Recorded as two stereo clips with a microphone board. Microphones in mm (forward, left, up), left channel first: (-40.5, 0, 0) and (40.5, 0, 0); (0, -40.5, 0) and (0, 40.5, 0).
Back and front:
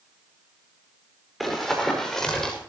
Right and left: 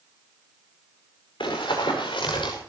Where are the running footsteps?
90° right, 6.5 m; by 2.5 s 95° right, 6 m.